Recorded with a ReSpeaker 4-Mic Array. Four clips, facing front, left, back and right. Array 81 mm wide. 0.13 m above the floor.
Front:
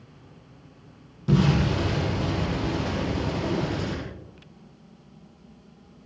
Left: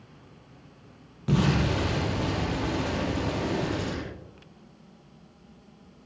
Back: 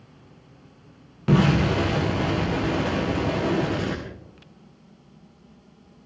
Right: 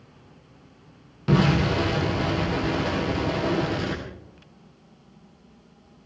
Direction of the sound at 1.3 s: 160° right.